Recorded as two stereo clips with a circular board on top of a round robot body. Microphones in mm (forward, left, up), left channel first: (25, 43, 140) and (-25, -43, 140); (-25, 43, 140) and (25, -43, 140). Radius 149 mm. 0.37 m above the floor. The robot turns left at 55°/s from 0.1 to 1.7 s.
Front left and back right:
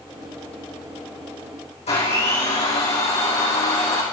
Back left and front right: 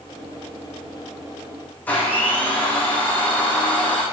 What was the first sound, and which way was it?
A blender, 50° left.